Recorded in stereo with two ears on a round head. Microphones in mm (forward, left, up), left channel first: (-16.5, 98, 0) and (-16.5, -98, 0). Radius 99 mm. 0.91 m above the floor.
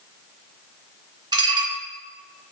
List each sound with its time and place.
1.3 s dishes clattering: 20° right (ahead or behind), 3 m